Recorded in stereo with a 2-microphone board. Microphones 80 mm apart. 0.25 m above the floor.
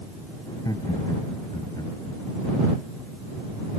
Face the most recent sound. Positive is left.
turn(degrees=55)  # may be behind; listen again after turning